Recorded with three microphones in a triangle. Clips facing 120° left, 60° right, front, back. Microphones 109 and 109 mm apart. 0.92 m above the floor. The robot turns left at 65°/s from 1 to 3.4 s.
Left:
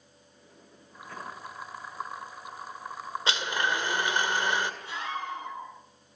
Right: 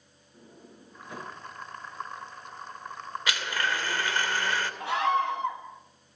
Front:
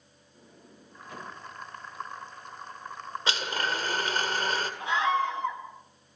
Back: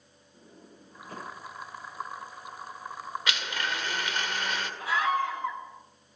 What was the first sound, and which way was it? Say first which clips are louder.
A sliding door: right 6 dB, back 2 dB; 125° right.